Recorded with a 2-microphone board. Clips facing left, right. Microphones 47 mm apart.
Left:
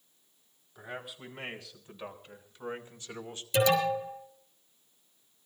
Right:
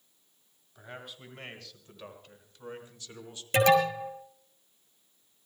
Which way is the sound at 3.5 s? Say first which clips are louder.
Right 3 dB; 50° right (ahead or behind).